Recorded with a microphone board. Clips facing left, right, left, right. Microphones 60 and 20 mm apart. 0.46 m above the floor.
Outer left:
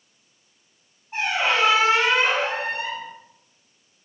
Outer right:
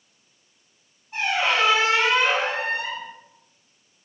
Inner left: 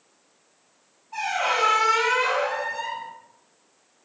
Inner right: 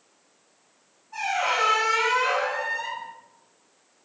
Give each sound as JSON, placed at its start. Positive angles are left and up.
{"t": 1.1, "sound": "a squeak", "side_deg": 25, "distance_m": 1.7}